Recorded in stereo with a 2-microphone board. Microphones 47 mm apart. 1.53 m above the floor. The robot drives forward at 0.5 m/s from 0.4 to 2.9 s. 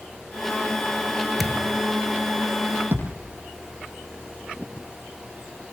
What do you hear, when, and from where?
1.4 s a thud: centre (ahead or behind), 1.4 m
2.9 s a thud: 45° right (ahead or behind), 8 m